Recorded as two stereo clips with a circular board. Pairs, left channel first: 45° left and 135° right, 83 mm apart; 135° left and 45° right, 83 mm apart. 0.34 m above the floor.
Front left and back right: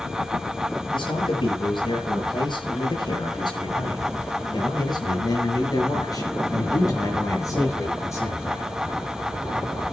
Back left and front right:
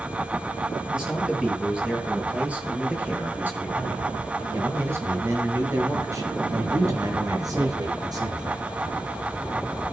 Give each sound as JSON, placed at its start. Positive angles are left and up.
{"t": 0.9, "sound": "a man speaking", "azimuth_deg": 35, "distance_m": 9.0}